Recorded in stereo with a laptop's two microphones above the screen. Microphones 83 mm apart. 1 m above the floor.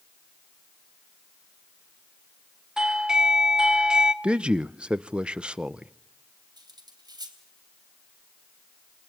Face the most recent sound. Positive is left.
turn(degrees=-55)  # may be behind; listen again after turning